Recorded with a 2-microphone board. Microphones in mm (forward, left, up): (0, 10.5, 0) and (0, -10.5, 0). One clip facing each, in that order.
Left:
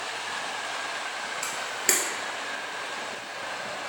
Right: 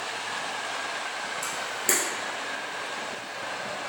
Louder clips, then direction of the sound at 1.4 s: Left 2 dB; 35° left (ahead or behind).